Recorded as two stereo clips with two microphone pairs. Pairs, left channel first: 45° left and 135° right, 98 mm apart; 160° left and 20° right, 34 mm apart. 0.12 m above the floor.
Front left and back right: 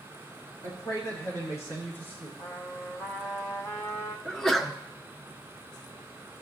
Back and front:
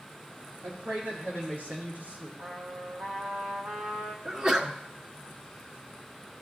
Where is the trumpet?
20° right, 1.3 m.